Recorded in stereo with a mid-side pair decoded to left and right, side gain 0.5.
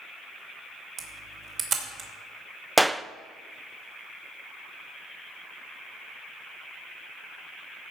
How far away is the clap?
About 0.5 m.